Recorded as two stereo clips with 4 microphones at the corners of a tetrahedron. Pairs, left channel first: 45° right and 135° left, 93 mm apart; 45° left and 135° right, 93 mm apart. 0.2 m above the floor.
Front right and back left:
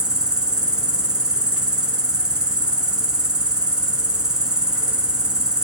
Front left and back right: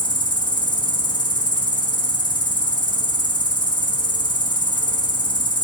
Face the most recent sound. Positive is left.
turn(degrees=55)